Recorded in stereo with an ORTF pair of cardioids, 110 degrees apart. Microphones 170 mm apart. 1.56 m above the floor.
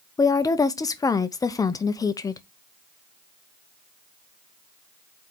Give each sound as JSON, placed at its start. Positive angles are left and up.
{"t": 0.2, "sound": "a woman speaking", "azimuth_deg": 20, "distance_m": 0.9}